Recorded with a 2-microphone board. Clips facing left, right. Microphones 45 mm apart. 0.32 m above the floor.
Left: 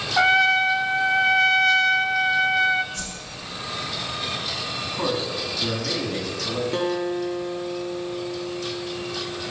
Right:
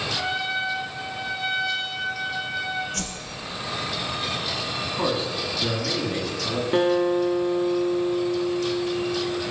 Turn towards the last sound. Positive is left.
turn(degrees=-20)  # may be behind; listen again after turning